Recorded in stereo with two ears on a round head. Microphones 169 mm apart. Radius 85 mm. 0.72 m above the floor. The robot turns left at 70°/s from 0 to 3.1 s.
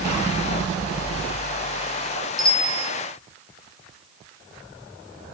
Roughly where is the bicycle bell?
Behind.